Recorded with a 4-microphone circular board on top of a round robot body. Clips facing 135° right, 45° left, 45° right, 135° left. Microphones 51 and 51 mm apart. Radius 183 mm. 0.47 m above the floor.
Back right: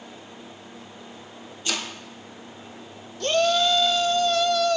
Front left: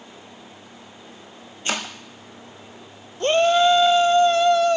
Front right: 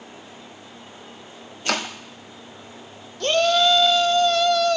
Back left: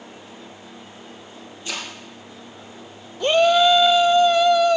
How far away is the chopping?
About 1.0 m.